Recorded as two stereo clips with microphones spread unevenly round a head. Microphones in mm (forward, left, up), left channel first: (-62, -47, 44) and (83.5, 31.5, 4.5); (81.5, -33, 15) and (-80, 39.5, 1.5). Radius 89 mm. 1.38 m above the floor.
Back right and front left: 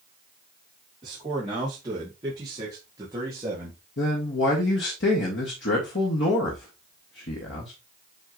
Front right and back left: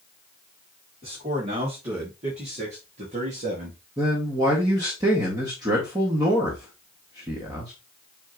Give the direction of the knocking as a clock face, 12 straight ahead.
I don't hear knocking.